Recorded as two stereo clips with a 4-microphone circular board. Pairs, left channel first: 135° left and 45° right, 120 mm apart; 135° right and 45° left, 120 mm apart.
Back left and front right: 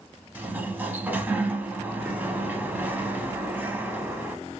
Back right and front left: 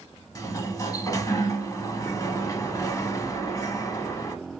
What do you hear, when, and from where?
0.3 s a sliding door: 110° right, 0.7 m